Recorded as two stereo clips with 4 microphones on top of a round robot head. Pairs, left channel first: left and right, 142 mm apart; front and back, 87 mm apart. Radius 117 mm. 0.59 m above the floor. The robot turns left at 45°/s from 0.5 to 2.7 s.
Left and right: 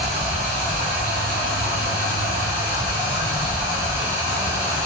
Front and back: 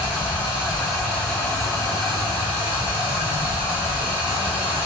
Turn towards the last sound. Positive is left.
turn(degrees=-155)